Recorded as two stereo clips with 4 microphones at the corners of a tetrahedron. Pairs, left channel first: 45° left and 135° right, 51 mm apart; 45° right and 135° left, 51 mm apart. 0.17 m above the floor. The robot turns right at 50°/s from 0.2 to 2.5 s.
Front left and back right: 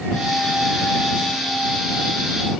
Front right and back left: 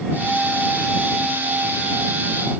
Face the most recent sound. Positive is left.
No sound to turn to.